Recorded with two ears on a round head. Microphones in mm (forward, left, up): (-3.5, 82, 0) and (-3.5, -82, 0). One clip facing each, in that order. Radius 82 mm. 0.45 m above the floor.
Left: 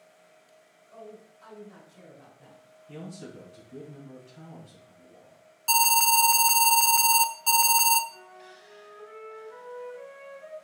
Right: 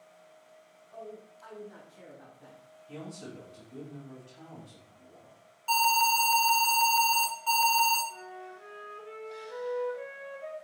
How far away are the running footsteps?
No running footsteps in this recording.